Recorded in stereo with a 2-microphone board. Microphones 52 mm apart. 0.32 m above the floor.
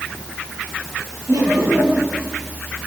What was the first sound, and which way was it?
Laughter, 80° right.